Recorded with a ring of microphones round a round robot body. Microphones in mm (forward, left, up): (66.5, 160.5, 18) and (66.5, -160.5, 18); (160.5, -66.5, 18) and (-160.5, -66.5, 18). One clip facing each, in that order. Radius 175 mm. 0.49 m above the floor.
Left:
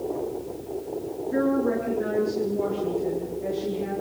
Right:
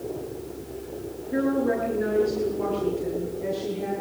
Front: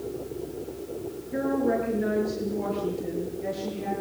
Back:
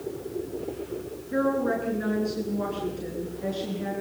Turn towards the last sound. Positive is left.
turn(degrees=-165)